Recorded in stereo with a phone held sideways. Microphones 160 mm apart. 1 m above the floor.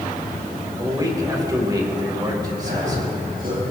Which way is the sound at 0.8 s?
25° right (ahead or behind).